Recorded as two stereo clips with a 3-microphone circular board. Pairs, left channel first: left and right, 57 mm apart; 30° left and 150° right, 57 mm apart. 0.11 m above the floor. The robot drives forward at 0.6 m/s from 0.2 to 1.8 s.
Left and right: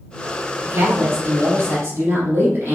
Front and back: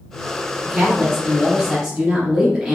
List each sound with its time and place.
0.6 s a woman speaking: 60° right, 2.5 m; by 2.8 s 80° right, 2.5 m